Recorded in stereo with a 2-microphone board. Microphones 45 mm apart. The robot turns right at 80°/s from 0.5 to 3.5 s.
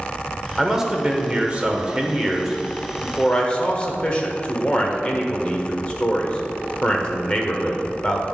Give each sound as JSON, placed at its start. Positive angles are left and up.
{"t": 0.6, "sound": "a man speaking", "side_deg": -5, "distance_m": 1.1}